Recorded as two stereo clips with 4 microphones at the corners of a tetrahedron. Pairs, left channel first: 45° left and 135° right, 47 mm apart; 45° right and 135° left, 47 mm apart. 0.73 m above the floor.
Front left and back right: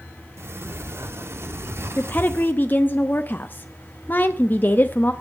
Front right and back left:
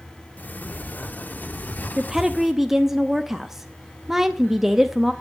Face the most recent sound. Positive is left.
turn(degrees=55)